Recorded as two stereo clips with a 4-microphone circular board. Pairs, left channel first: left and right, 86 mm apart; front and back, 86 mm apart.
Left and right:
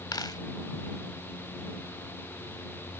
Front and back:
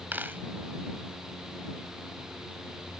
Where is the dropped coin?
115° left.